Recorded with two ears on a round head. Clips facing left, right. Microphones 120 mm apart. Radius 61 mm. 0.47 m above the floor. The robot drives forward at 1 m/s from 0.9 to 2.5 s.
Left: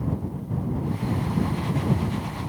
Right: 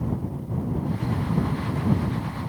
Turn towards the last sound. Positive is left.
No sound to turn to.